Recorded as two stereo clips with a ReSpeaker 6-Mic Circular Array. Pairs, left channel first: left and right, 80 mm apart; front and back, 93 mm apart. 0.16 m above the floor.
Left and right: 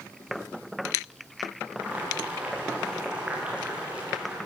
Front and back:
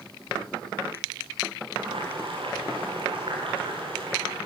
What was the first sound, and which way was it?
Boiling, 165° right.